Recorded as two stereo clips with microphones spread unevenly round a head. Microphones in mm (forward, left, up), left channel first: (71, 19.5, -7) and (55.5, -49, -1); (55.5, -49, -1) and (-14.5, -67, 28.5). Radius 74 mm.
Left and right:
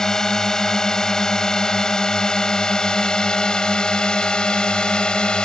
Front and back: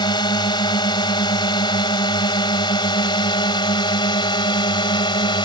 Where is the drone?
5° right; by 5.5 s straight ahead.